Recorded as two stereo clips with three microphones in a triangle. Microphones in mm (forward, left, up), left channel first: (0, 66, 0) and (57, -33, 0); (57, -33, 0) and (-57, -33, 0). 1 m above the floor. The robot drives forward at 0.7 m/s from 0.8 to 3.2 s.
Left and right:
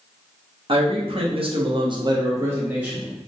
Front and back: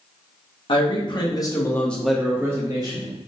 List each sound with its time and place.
0.7 s a man speaking: 30° right, 1.2 m; by 3.1 s 140° right, 1.0 m